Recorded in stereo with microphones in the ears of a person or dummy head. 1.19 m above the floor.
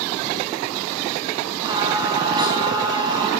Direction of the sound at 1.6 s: 25° right (ahead or behind).